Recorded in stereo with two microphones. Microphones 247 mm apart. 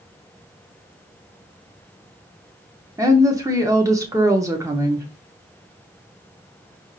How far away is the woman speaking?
About 0.7 m.